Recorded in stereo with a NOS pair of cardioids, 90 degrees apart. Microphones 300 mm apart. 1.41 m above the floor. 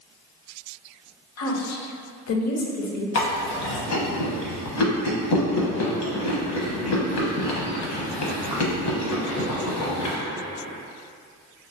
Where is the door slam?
No door slam in this recording.